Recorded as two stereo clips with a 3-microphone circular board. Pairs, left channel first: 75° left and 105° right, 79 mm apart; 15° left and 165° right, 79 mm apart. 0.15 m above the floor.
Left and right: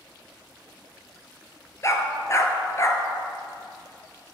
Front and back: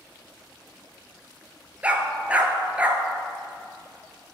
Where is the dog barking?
120° left, 1.0 m.